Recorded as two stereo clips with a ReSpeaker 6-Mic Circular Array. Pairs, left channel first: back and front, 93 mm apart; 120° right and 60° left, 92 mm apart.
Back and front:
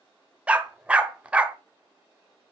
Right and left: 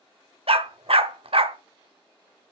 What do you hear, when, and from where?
0.5 s a dog barking: 80° left, 0.9 m